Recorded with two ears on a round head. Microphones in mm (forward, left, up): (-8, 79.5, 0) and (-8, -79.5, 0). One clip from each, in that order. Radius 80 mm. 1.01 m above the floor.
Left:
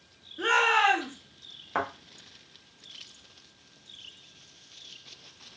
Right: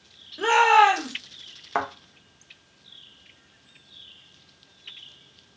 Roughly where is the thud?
Right.